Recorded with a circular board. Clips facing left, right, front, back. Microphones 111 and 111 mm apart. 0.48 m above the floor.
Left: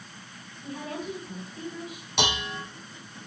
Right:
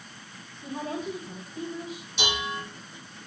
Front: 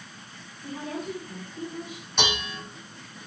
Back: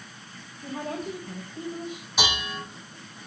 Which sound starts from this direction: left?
Dishes clattering, at 2.2 s.